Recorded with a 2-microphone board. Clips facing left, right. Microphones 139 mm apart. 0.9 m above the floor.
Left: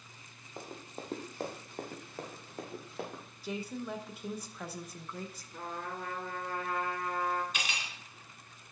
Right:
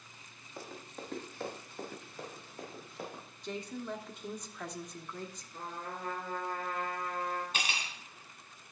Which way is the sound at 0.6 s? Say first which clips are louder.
Left 1 dB; 20° left (ahead or behind).